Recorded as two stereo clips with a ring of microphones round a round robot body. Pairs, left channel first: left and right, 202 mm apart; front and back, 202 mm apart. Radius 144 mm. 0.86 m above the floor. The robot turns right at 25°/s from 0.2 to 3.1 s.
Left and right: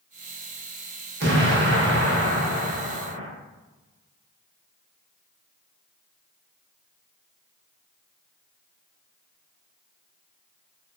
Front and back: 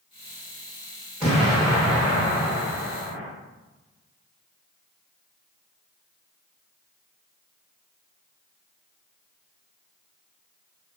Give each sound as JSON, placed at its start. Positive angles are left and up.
{"t": 1.2, "sound": "an explosion", "azimuth_deg": -95, "distance_m": 0.6}